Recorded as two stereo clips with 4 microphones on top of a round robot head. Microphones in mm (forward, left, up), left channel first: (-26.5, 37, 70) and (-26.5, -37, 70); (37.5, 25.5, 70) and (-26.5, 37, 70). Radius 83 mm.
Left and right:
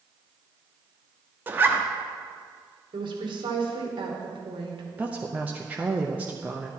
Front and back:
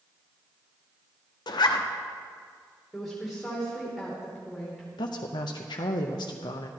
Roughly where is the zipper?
Ahead.